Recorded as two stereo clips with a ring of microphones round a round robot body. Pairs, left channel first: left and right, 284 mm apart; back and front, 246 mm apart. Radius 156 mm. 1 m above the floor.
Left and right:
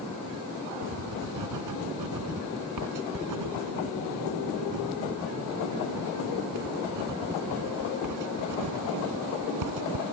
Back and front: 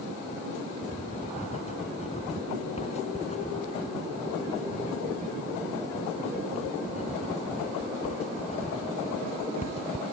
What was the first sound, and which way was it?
Writing, 110° right.